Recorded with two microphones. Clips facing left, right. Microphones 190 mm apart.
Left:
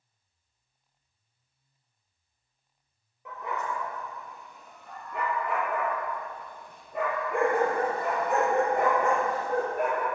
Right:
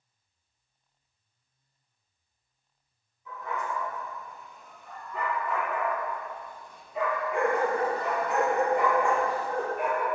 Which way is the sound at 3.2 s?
80° left.